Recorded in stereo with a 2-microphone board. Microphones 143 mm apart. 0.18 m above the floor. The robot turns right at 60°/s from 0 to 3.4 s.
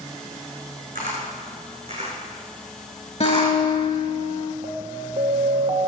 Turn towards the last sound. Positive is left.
turn(degrees=-40)  # may be behind; listen again after turning